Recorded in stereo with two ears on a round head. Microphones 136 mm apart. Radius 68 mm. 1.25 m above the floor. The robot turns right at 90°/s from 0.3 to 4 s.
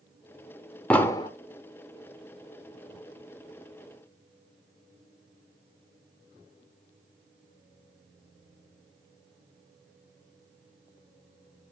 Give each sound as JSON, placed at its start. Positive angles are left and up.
{"t": 0.9, "sound": "an explosion", "azimuth_deg": 10, "distance_m": 1.1}